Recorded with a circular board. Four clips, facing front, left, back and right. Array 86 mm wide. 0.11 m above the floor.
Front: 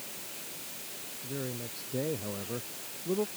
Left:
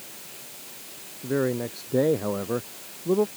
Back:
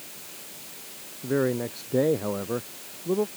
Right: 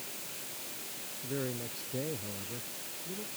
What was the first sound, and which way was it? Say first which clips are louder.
A man speaking: left 12 dB, back 14 dB; 145° left.